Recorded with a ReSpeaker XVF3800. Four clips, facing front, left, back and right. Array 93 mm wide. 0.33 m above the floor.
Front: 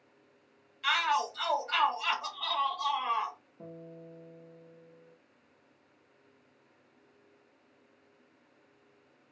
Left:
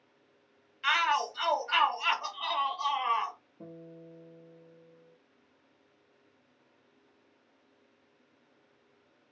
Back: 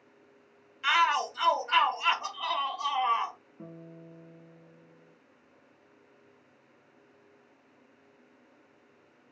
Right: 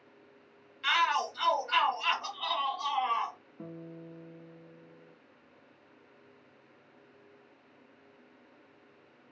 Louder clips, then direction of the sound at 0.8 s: Even, back 4 dB; 150° left.